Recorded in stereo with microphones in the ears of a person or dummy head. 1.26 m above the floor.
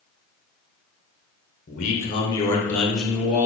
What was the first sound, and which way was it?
A man speaking, 40° left (ahead or behind).